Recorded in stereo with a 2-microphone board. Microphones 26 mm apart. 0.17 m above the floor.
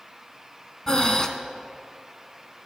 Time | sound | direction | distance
0.9 | breathing | 30° left (ahead or behind) | 0.6 m